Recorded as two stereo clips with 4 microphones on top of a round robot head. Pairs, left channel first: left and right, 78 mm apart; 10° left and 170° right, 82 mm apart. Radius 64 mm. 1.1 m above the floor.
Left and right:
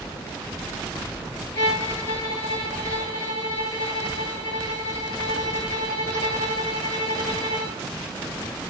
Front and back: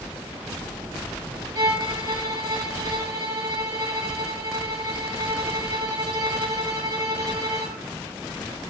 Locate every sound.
1.6 s a violin: 150° left, 6.5 m